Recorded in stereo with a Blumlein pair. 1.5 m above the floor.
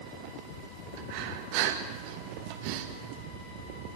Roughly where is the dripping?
No dripping in this recording.